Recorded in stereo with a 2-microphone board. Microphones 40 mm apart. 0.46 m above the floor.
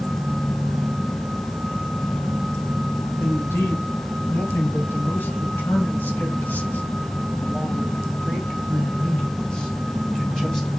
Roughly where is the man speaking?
Left.